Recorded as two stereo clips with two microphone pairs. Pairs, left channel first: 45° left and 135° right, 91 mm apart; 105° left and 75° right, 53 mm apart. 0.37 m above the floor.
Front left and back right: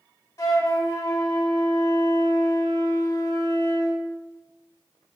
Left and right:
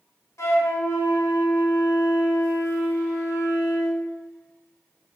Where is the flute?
100° left, 0.6 m.